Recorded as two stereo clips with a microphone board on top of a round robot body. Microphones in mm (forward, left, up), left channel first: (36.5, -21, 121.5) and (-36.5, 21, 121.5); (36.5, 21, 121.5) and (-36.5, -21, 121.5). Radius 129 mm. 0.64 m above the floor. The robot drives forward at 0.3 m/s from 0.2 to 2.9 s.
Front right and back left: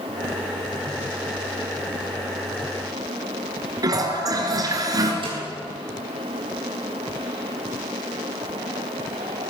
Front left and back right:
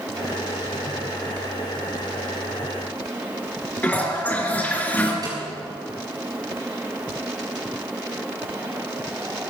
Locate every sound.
3.8 s a toilet flushing: 100° left, 2.5 m
5.2 s a snare drum: 165° left, 7 m